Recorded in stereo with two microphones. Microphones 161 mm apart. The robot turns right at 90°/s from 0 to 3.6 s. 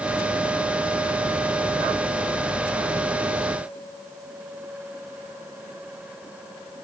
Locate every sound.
Only background noise.